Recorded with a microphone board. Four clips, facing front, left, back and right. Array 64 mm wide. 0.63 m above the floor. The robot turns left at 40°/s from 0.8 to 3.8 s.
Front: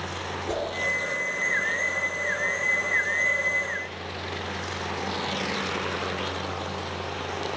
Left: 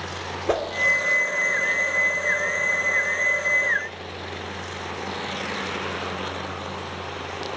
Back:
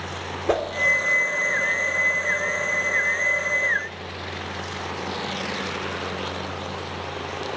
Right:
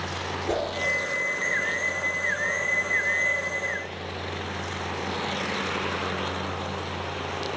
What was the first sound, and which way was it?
A whoosh, 140° left.